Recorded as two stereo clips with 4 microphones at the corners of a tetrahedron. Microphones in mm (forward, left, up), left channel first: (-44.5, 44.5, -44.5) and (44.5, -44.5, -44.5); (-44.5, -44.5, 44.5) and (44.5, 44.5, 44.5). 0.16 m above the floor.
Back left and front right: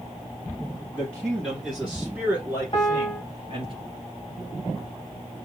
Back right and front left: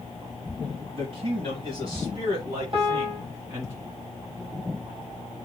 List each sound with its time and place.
0.9 s a man speaking: 65° left, 1.5 m; by 3.7 s 15° right, 1.8 m
2.7 s a piano: 85° left, 1.2 m